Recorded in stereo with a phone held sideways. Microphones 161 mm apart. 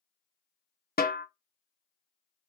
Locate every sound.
1.0 s a snare drum: 70° left (ahead or behind), 0.6 m